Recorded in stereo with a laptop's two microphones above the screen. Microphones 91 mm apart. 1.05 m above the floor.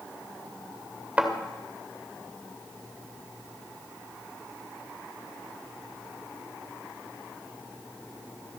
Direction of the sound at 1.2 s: 15° right (ahead or behind).